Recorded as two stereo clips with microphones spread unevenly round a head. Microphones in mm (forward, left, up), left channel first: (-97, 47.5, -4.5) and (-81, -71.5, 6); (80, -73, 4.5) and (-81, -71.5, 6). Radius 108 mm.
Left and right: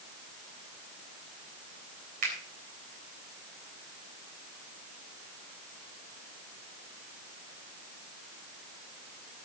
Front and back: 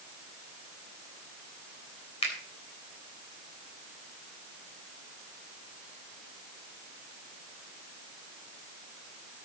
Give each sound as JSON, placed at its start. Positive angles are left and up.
{"t": 2.2, "sound": "a finger snap", "azimuth_deg": -55, "distance_m": 3.5}